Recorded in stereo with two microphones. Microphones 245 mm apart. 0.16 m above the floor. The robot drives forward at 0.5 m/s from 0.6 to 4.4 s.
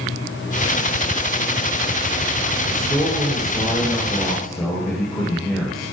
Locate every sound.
2.7 s a man speaking: centre (ahead or behind), 2.5 m